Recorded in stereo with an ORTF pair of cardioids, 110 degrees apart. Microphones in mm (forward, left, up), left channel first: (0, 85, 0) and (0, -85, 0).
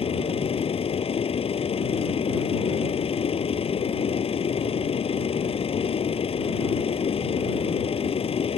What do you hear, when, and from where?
0.0 s a machine running: 35° left